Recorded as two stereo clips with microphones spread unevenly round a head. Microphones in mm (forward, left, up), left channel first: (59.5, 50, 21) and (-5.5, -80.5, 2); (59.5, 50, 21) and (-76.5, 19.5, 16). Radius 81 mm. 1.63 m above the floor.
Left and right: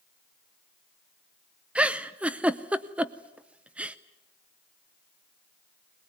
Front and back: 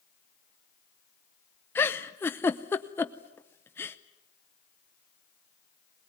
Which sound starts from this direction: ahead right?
A giggle, at 1.8 s.